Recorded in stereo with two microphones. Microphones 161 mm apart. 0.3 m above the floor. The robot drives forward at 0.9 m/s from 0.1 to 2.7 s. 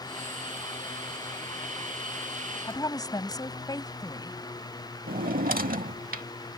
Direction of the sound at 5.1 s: 65° right (ahead or behind).